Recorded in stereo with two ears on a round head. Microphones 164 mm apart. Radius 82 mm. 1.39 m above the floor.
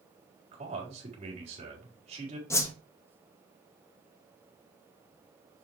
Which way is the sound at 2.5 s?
15° left (ahead or behind).